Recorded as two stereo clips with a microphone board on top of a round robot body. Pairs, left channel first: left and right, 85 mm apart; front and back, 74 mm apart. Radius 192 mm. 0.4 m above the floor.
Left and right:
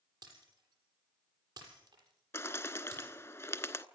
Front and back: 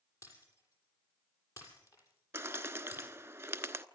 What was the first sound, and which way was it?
Breaking glass, 45° right.